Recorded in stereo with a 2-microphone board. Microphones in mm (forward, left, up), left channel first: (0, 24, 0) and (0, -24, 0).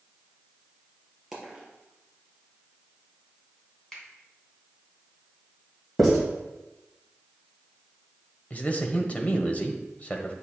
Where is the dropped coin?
5° right (ahead or behind), 4 m.